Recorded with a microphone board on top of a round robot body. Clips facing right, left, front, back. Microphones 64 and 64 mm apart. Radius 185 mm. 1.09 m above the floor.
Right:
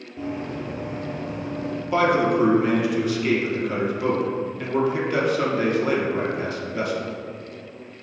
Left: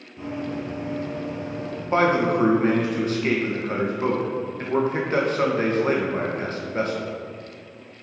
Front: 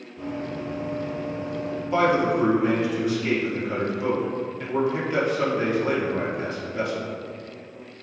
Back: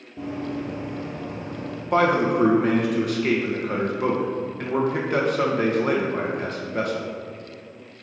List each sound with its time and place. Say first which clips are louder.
0.2 s running footsteps: even, back 2 dB; 160° right, 1.6 m; by 1.8 s 130° right, 2.5 m
1.9 s a man speaking: even, back 1 dB; 140° left, 1.7 m